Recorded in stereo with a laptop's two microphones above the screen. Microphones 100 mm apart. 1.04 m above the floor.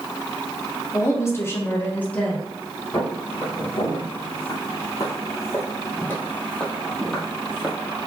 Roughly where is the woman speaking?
Left.